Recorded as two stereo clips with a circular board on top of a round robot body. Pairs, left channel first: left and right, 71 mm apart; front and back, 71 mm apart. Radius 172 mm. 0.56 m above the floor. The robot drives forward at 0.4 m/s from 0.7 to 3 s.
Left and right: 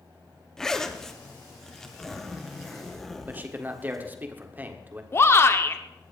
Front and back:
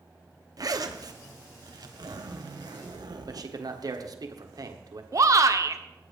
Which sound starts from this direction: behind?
A zipper, at 0.6 s.